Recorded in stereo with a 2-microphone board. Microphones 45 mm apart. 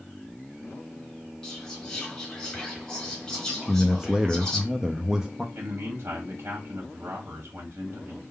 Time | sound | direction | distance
1.4 | whispering | 20° left (ahead or behind) | 2 m
3.6 | a man speaking | 15° right (ahead or behind) | 0.6 m
5.5 | a man speaking | 65° right (ahead or behind) | 1.3 m